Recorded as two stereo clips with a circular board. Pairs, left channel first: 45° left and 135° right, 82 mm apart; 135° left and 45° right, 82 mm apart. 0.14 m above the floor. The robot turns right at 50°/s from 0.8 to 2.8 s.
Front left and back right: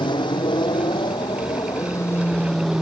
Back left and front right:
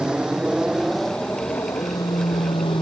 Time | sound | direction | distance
0.0 | an aircraft | 35° left | ?